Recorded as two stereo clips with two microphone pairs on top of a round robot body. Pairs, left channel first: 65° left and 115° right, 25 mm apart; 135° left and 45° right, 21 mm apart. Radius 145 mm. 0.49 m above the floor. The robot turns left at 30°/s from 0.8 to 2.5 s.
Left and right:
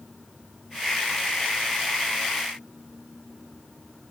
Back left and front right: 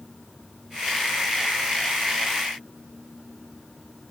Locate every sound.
Only background noise.